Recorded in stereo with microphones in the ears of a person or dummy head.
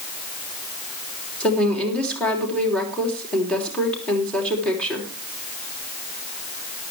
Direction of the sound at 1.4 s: 5° left (ahead or behind).